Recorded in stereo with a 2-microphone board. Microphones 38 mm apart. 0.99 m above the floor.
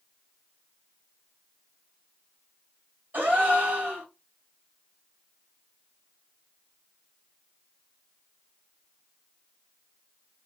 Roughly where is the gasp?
Right.